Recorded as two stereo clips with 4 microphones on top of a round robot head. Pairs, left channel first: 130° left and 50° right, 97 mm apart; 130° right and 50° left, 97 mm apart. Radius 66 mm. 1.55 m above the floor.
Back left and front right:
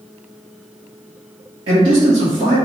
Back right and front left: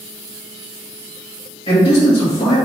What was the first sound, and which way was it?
A man speaking, 95° right.